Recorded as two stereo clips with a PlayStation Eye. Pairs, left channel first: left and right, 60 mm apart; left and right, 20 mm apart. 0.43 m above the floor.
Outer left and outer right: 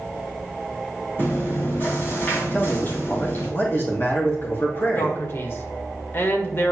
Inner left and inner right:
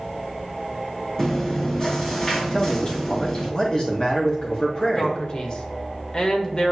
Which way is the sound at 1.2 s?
35° left (ahead or behind).